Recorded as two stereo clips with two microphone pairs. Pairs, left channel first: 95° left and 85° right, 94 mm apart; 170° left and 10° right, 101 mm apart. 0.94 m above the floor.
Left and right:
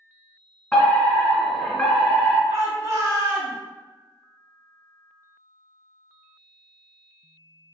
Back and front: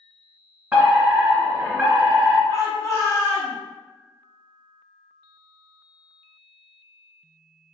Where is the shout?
135° right, 1.4 m.